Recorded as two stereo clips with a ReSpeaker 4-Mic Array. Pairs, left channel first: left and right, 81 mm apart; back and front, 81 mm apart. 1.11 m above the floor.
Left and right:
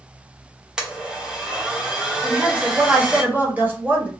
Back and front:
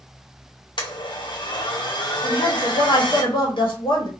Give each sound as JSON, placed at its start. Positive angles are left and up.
{"t": 0.8, "sound": "a blender", "azimuth_deg": -170, "distance_m": 0.7}
{"t": 2.2, "sound": "a woman speaking", "azimuth_deg": -160, "distance_m": 1.1}